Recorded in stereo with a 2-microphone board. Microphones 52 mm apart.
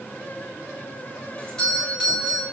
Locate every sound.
1.4 s a doorbell: 10° left (ahead or behind), 7 m